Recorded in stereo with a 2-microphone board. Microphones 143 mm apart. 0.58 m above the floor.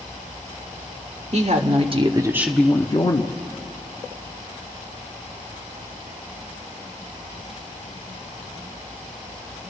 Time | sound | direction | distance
1.3 | a woman speaking | 60° right (ahead or behind) | 1.5 m